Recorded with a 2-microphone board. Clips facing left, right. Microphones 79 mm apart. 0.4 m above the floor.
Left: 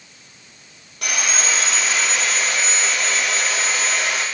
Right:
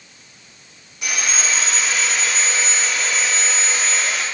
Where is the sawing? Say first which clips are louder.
Left 1 dB; 60° left (ahead or behind), 3.5 m.